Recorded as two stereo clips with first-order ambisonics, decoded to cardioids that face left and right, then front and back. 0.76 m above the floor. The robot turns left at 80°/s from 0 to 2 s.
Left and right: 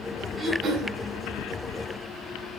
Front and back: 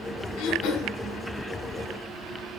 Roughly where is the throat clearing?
Ahead.